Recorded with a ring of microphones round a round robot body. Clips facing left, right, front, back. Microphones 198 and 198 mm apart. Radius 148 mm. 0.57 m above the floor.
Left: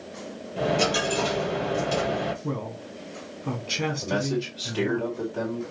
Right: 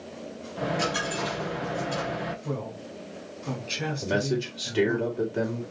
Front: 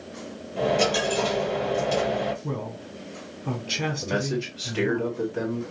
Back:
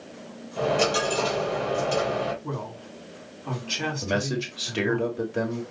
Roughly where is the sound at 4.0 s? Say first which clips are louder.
Right 3 dB, back 1 dB; behind right.